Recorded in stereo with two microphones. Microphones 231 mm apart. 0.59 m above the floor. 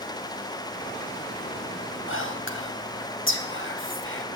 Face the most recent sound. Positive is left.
turn(degrees=60)  # may be behind; listen again after turning